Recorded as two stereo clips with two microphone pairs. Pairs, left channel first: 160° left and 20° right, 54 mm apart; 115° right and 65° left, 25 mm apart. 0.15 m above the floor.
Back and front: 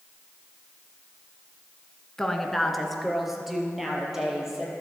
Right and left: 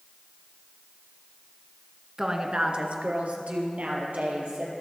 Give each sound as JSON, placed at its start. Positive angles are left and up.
{"t": 2.2, "sound": "a woman speaking", "azimuth_deg": 95, "distance_m": 1.1}